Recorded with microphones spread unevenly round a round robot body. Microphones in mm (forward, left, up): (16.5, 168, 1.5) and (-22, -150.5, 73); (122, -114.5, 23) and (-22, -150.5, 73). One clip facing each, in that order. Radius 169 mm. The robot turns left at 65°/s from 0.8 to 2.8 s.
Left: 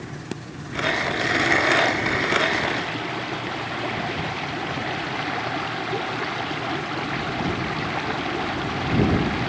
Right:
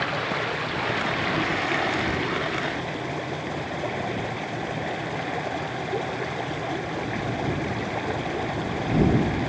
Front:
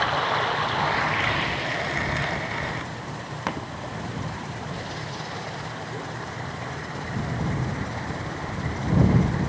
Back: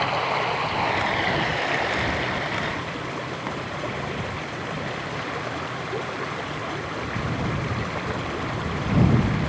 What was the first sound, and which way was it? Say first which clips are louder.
Running water: right 4 dB, back 1 dB; 85° right.